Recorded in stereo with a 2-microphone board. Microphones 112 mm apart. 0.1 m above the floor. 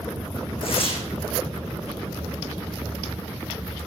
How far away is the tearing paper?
About 6 m.